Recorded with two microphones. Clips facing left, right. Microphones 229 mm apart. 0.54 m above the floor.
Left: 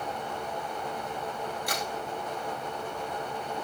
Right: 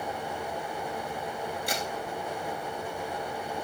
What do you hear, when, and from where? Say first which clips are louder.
1.7 s a crack: right 1 dB; 30° right (ahead or behind), 3.5 m